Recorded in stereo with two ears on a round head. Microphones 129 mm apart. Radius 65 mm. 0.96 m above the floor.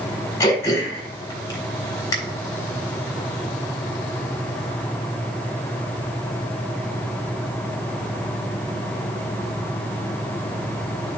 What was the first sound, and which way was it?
Throat clearing, 25° left (ahead or behind).